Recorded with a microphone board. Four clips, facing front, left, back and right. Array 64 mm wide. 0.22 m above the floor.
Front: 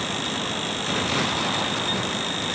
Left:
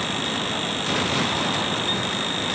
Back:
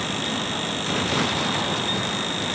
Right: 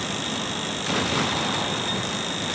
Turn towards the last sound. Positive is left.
No sound to turn to.